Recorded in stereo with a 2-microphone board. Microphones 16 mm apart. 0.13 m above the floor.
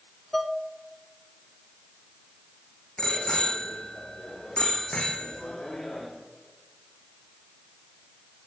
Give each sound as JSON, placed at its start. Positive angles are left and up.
{"t": 0.3, "sound": "dishes clattering", "side_deg": 5, "distance_m": 0.8}
{"t": 3.0, "sound": "a bicycle bell", "side_deg": 75, "distance_m": 4.5}